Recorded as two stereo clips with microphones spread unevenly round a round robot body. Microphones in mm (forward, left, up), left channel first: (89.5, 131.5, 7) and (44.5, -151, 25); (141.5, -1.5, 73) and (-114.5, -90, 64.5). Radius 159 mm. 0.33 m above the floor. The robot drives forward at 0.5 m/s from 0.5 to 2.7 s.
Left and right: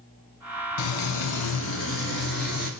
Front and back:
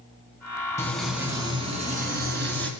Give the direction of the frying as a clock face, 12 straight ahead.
9 o'clock.